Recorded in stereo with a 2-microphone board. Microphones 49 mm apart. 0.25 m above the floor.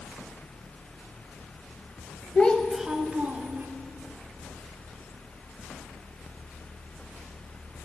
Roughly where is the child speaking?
Left.